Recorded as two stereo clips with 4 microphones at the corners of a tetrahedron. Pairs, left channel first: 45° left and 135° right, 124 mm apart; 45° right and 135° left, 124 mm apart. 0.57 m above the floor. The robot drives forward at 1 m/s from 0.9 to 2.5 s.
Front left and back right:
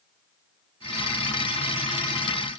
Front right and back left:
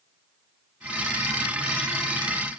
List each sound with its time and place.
Only background noise.